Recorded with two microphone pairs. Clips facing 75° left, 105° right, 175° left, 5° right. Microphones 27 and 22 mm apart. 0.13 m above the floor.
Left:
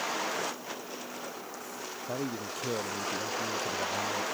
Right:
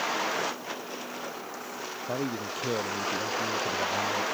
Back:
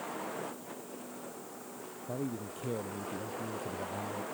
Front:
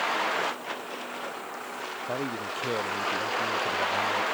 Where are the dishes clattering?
No dishes clattering in this recording.